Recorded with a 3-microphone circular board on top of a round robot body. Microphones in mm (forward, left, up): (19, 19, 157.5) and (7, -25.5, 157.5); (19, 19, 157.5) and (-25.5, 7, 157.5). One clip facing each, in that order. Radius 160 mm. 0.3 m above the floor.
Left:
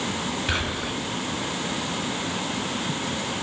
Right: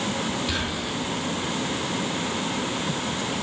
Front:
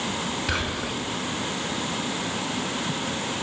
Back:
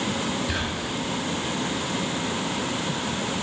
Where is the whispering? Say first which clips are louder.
Left 1 dB, front 1 dB; 25° left, 4.5 m.